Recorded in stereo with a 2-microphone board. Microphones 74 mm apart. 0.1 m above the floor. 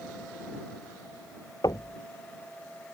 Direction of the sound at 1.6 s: 55° left (ahead or behind).